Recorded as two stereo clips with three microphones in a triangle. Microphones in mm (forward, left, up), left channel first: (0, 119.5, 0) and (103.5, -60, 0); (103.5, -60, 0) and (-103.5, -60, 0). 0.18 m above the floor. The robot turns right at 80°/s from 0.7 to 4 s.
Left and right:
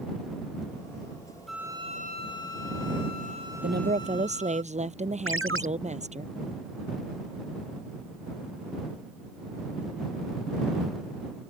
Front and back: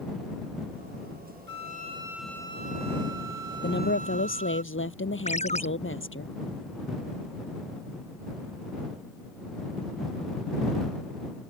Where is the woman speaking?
35° right; by 6.3 s 5° right.